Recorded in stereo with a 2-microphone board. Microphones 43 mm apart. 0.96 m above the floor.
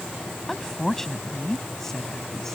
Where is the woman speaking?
10° left (ahead or behind).